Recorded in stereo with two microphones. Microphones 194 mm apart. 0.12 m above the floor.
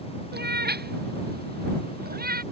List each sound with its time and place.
0.3 s a cat meowing: 55° right (ahead or behind); by 2.4 s 50° right (ahead or behind)